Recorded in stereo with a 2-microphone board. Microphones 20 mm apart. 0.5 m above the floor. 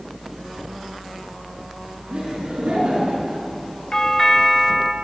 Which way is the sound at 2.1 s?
55° right (ahead or behind).